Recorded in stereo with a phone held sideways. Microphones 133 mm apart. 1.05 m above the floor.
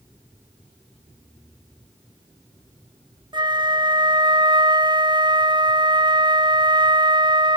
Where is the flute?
35° right (ahead or behind), 0.7 m.